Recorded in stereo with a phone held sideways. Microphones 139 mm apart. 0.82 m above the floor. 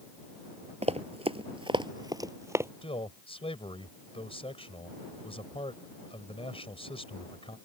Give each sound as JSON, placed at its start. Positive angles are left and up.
{"t": 0.8, "sound": "running footsteps", "side_deg": -50}
{"t": 2.8, "sound": "a man speaking", "side_deg": 45}